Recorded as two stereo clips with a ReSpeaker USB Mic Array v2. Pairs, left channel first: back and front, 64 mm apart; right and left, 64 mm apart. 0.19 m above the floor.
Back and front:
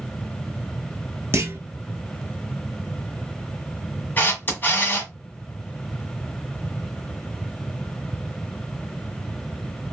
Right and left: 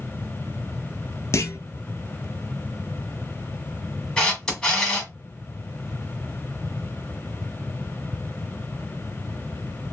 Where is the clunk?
50° right, 0.9 m.